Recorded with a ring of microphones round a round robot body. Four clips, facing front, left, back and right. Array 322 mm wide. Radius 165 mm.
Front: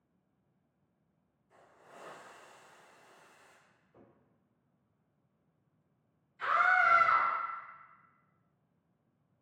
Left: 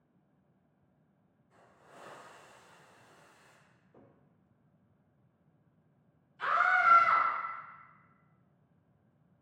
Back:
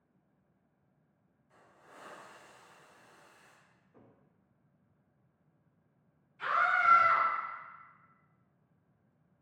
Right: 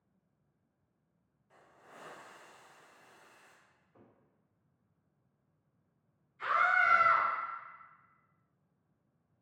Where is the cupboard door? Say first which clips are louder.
Left 3 dB, even; 95° left, 1.1 m.